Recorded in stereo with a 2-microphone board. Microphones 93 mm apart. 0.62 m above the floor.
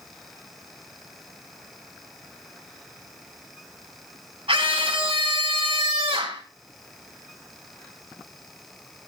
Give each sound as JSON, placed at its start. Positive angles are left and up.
{"t": 4.5, "sound": "a scream", "side_deg": -75, "distance_m": 4.5}